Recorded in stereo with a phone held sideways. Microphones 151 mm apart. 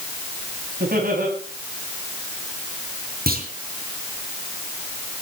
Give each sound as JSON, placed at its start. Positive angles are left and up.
{"t": 0.8, "sound": "laughter", "side_deg": -75, "distance_m": 8.0}
{"t": 3.3, "sound": "a clunk", "side_deg": -80, "distance_m": 4.5}